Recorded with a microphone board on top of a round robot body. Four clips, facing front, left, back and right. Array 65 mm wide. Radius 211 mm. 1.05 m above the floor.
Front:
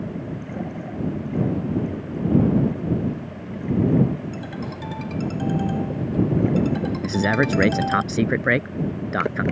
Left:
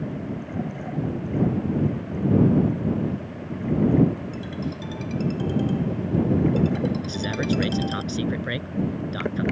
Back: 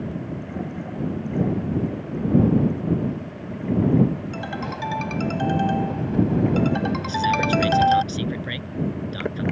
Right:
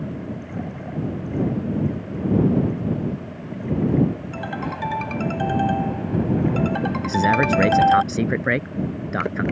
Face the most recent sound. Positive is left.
turn(degrees=-30)